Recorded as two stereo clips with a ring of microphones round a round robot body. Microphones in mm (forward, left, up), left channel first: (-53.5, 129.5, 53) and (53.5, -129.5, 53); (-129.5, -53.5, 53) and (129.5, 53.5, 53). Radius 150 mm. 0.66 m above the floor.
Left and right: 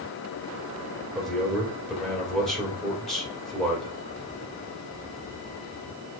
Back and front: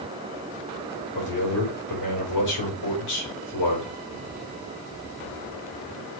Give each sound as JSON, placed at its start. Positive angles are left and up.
{"t": 1.1, "sound": "a man speaking", "azimuth_deg": -160, "distance_m": 3.5}